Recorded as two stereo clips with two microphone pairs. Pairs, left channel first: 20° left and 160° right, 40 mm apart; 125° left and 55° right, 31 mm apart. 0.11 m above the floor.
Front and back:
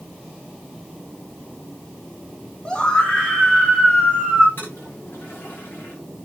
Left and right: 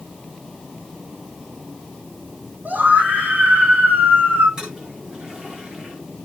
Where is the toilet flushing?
10° left, 7.5 m.